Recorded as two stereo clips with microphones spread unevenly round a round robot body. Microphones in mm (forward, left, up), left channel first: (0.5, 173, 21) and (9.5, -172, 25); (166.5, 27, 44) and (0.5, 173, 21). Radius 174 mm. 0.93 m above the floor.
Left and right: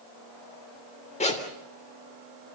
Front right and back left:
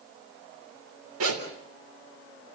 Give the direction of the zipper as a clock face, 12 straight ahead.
7 o'clock.